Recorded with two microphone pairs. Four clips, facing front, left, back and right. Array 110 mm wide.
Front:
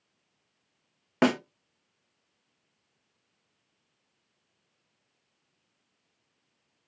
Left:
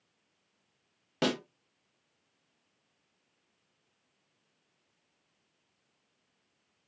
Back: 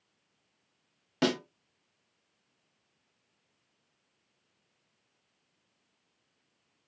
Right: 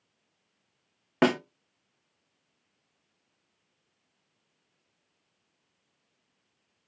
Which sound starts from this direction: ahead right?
A snare drum, at 1.2 s.